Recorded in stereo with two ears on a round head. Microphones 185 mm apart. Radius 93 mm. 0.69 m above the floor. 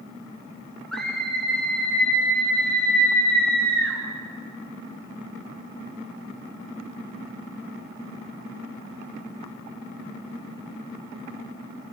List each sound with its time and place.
0.9 s a scream: centre (ahead or behind), 8 m; by 4.0 s 10° left (ahead or behind), 9.5 m